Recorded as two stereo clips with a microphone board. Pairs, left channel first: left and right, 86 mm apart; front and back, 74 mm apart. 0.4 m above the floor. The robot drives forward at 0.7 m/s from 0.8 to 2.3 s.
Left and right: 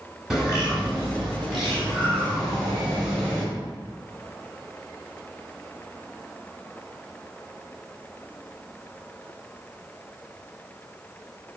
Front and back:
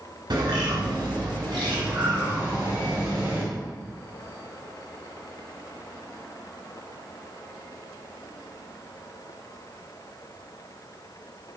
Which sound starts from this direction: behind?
A bird, at 0.3 s.